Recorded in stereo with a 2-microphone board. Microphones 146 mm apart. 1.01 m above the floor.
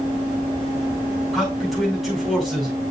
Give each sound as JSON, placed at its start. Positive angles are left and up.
{"t": 1.3, "sound": "a man speaking", "side_deg": 0, "distance_m": 6.5}